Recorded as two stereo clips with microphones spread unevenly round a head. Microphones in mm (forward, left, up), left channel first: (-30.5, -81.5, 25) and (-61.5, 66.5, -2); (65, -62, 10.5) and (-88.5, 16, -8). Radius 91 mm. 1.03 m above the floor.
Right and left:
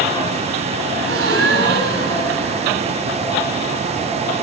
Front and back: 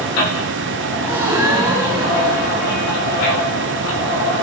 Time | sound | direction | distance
1.0 | a gasp | 70° left | 8 m